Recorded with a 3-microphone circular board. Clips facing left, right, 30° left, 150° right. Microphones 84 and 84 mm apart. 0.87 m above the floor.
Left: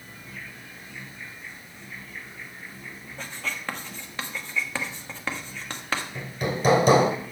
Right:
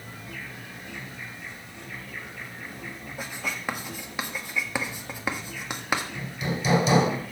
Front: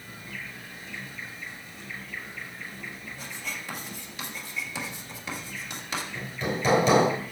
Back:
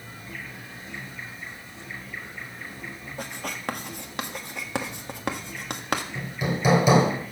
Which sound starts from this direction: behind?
Writing, at 3.2 s.